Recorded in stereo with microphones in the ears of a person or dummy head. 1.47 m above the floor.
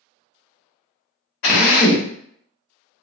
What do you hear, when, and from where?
1.4 s a drill: 60° left (ahead or behind), 1.0 m